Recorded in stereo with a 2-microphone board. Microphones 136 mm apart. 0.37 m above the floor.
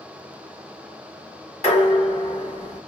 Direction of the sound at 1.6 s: 55° left (ahead or behind).